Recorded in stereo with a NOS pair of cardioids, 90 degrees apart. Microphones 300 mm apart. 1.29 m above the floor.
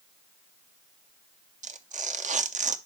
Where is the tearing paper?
25° right, 0.7 m.